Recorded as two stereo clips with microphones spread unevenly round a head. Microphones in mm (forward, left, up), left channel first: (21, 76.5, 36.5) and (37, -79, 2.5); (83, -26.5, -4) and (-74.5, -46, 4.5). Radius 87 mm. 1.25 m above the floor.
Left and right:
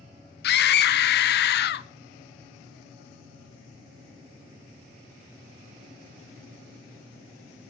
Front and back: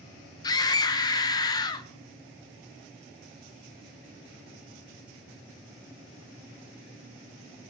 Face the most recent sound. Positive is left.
turn(degrees=75)